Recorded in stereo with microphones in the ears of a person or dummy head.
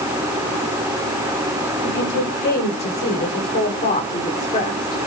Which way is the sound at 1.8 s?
55° left (ahead or behind).